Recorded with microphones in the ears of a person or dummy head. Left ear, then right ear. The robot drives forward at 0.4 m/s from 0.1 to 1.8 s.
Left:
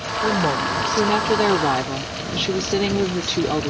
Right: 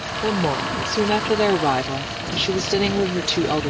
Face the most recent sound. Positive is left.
turn(degrees=-5)  # may be behind; listen again after turning